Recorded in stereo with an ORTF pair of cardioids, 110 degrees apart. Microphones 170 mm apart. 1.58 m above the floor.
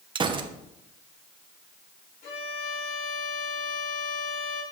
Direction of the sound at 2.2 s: 65° left.